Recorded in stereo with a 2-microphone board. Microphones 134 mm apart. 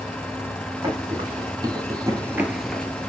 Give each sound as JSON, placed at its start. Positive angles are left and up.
{"t": 0.8, "sound": "running footsteps", "side_deg": -30, "distance_m": 2.0}